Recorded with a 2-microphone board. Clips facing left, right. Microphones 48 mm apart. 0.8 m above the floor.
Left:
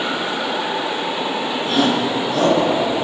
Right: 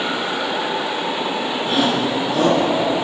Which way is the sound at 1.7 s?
10° right (ahead or behind).